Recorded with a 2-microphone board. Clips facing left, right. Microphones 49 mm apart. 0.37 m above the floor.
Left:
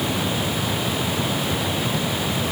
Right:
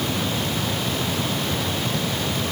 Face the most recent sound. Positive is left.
No sound to turn to.